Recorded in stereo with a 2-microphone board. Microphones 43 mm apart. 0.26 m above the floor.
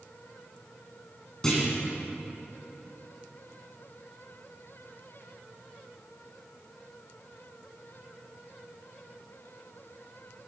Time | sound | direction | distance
1.4 | a clunk | 15° left (ahead or behind) | 2.5 m